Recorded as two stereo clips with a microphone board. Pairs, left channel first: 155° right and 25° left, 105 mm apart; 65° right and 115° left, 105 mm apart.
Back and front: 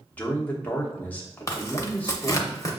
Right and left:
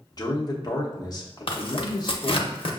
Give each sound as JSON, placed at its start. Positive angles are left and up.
{"t": 0.1, "sound": "a man speaking", "azimuth_deg": -90, "distance_m": 0.9}
{"t": 1.5, "sound": "tearing paper", "azimuth_deg": -100, "distance_m": 0.7}